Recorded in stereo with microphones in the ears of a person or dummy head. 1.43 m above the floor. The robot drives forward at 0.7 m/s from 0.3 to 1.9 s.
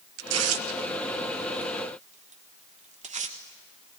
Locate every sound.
0.2 s tearing paper: 85° right, 0.9 m; by 3.4 s 40° right (ahead or behind), 1.5 m